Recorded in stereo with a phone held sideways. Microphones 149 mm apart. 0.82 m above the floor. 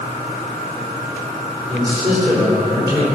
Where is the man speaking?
35° right (ahead or behind), 3.5 m.